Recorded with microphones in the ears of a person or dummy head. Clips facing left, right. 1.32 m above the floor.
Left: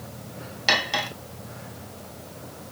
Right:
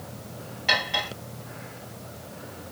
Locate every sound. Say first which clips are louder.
0.7 s cutlery clinking: left 2 dB; 50° left (ahead or behind), 1.2 m